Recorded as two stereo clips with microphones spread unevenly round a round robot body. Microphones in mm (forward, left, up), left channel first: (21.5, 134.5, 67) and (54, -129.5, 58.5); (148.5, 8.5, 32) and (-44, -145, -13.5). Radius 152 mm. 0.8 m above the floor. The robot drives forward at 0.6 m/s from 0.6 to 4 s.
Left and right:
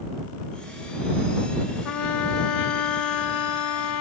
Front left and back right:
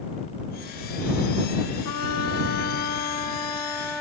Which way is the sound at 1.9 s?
85° left.